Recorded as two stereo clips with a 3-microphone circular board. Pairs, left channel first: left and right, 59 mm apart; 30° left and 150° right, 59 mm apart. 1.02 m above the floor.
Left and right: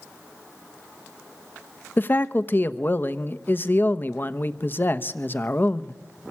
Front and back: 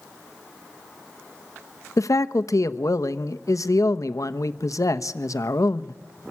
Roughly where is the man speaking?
Ahead left.